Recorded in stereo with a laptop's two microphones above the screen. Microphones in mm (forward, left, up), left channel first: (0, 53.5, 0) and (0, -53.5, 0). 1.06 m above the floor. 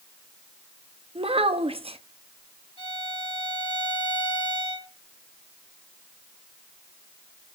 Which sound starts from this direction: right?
A child speaking, at 1.1 s.